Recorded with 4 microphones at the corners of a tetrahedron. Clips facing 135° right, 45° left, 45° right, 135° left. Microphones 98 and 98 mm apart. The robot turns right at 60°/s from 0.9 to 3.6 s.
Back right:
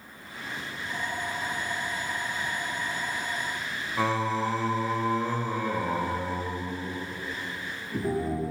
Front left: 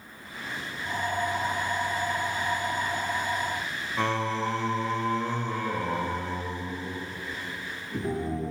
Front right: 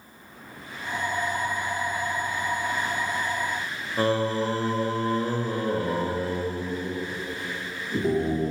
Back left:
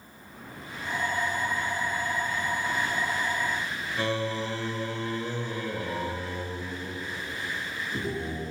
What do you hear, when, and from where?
4.0 s singing: 50° right, 1.0 m